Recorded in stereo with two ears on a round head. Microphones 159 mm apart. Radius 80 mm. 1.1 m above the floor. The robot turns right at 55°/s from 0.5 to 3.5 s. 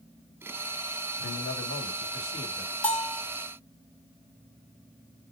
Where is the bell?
10° left (ahead or behind), 1.3 m; by 3.2 s 10° right (ahead or behind), 1.3 m.